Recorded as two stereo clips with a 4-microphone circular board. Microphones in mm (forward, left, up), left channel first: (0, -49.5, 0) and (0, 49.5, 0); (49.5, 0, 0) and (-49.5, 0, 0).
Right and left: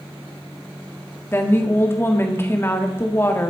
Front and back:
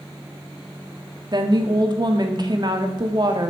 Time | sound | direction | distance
1.3 | a woman speaking | 150° right | 1.7 m